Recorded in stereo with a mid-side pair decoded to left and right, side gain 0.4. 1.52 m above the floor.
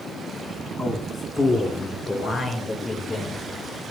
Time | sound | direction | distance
0.8 | a man speaking | 35° left | 3 m